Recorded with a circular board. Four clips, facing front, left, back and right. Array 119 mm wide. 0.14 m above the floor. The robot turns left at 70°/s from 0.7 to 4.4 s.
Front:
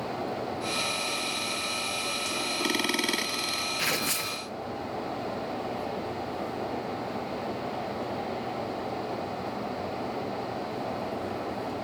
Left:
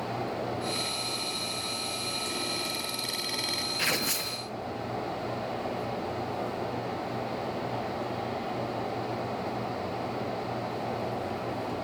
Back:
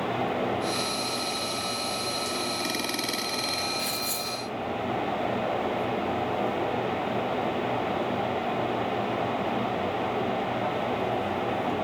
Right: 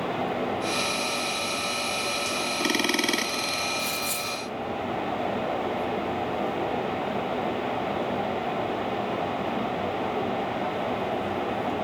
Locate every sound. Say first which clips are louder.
3.8 s tearing paper: right 1 dB, front 1 dB; 55° left, 0.9 m; by 4.4 s 15° left, 0.9 m